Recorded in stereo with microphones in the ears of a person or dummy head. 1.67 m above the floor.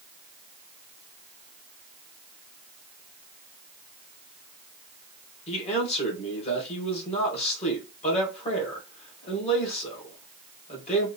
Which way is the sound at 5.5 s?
30° left (ahead or behind).